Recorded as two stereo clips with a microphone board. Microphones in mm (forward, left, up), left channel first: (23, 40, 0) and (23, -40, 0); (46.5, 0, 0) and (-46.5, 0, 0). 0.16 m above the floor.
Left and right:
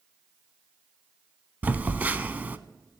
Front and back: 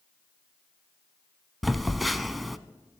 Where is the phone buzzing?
90° right, 0.5 m.